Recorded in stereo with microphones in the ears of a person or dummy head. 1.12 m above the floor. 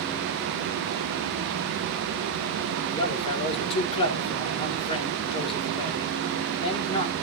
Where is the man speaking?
30° left (ahead or behind), 2.5 m.